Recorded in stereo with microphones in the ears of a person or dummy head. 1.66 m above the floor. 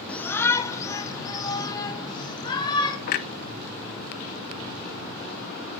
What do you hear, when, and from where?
0.1 s a shout: 10° left (ahead or behind), 1.2 m; by 3.0 s 25° left (ahead or behind), 3 m
3.1 s a clunk: 45° left (ahead or behind), 0.8 m